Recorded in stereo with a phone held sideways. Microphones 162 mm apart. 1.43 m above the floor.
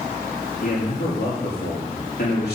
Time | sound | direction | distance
0.6 | a man speaking | 80° left | 2.5 m